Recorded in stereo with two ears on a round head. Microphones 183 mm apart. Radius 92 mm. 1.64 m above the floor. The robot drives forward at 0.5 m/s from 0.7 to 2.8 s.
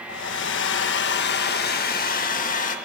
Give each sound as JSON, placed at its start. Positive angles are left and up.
{"t": 0.1, "sound": "a hair dryer", "side_deg": 60, "distance_m": 1.4}